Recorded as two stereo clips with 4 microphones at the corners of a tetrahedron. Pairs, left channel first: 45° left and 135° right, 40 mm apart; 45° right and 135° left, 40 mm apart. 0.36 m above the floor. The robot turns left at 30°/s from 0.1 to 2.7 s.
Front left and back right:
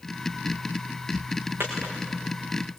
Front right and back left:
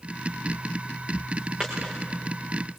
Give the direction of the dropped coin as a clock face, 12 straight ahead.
5 o'clock.